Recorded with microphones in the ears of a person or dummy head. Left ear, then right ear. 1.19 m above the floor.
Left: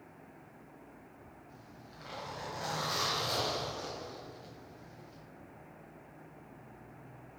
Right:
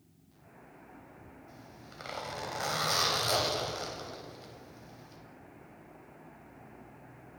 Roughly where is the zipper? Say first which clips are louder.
Right 2 dB; right.